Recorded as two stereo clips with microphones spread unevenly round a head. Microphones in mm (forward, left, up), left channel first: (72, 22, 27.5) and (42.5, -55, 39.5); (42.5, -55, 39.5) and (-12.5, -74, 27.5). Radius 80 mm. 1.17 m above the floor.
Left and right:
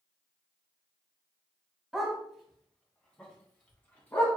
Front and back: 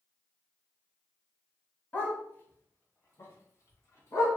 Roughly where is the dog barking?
Ahead right.